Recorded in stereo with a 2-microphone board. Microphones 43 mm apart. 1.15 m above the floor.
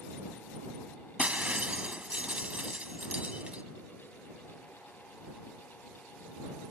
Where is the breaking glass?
30° right (ahead or behind).